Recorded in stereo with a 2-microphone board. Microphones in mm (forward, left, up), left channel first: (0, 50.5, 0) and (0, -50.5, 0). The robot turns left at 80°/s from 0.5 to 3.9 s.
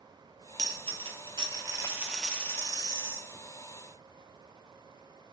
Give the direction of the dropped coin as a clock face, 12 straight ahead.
2 o'clock.